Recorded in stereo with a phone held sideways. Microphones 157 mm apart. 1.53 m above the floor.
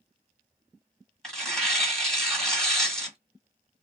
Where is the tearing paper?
5° left (ahead or behind), 1.8 m.